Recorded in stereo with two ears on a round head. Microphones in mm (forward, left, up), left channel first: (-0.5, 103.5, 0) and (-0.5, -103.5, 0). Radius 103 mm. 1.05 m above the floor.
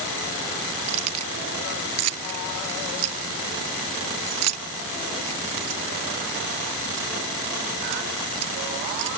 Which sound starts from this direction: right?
Keys jangling, at 0.9 s.